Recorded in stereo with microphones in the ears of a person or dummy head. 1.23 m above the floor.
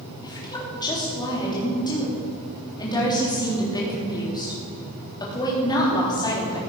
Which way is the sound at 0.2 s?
25° left (ahead or behind).